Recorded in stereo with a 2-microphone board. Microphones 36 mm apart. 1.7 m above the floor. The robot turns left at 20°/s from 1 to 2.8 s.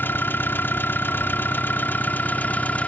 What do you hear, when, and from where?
0.0 s an engine running: 85° left; by 2.9 s 50° left